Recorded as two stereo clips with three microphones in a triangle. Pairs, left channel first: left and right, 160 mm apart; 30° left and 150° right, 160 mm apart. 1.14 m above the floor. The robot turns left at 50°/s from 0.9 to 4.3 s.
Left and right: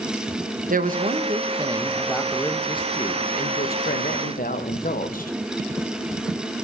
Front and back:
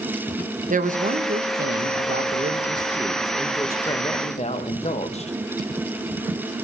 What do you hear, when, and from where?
0.7 s a woman speaking: 120° right, 1.2 m; by 5.3 s 70° left, 1.2 m